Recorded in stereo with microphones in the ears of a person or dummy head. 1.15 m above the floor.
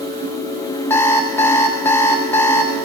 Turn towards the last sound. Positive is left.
turn(degrees=10)  # may be behind; listen again after turning